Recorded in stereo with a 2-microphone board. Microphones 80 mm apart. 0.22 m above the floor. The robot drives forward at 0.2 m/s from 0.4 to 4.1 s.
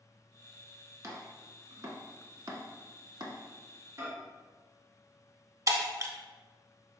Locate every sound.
1.0 s chopping: 40° right (ahead or behind), 0.9 m; by 3.4 s 60° right (ahead or behind), 0.7 m
4.0 s a microwave: 35° right (ahead or behind), 1.1 m
5.7 s breaking glass: 45° right (ahead or behind), 0.7 m